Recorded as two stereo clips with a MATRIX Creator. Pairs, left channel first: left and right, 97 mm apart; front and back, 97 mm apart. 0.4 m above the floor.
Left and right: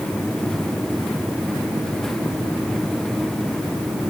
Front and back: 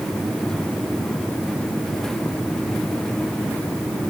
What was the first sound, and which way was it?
Only background noise.